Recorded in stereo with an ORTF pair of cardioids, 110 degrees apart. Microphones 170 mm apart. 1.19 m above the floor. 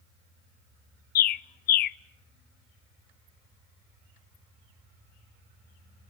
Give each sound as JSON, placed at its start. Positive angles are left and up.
{"t": 1.1, "sound": "a bird", "azimuth_deg": 60, "distance_m": 0.7}